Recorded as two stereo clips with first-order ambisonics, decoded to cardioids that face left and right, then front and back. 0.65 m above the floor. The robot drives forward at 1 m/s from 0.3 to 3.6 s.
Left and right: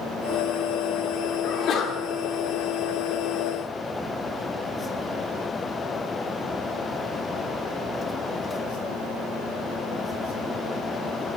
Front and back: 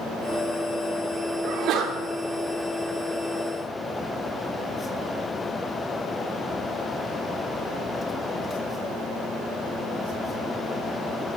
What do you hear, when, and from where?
1.4 s a sneeze: 135° left, 2 m; by 2.0 s 145° left, 2.5 m